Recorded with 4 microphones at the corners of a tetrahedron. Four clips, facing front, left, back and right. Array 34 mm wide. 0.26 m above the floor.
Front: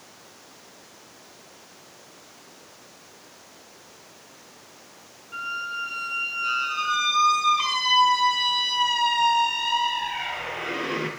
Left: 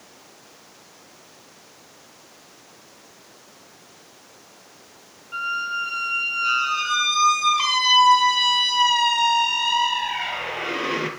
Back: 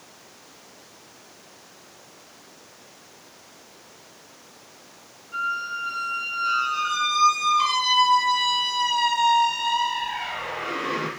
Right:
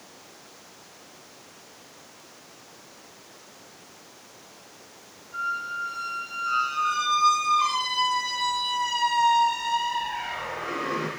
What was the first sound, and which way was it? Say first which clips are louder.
A squeak: left 4 dB, back 3 dB; 75° left.